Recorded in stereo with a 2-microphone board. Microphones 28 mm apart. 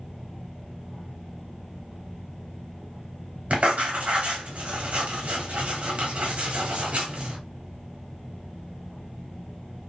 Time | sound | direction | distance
3.5 | writing | 55° right (ahead or behind) | 1.4 m